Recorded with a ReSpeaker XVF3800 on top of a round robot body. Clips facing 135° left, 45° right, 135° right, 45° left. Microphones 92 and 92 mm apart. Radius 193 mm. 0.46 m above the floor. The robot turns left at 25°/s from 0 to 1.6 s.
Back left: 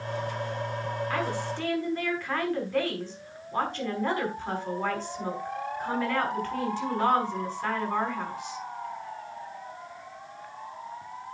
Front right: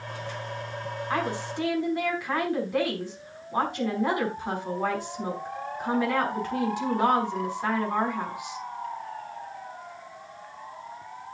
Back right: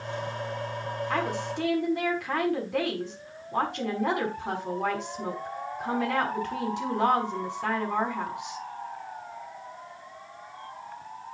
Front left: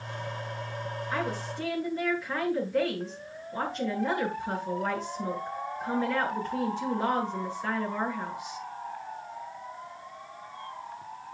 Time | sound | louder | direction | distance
1.1 | a woman speaking | front right 4 dB, back right 3 dB | 110° right | 5.5 m